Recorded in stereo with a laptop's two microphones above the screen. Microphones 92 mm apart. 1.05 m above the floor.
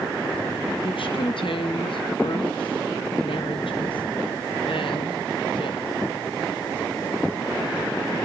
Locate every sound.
0.8 s a woman speaking: 70° left (ahead or behind), 1.1 m